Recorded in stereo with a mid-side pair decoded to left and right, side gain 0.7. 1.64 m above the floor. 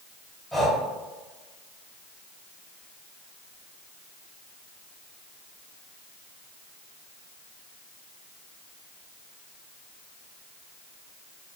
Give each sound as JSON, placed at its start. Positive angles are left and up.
{"t": 0.5, "sound": "breathing", "azimuth_deg": 5, "distance_m": 1.3}